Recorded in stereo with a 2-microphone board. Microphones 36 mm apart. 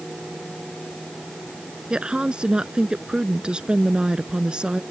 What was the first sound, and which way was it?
A woman speaking, 25° right (ahead or behind).